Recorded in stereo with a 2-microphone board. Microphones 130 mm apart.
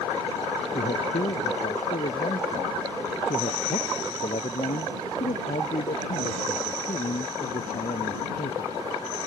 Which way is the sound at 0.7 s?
75° left (ahead or behind).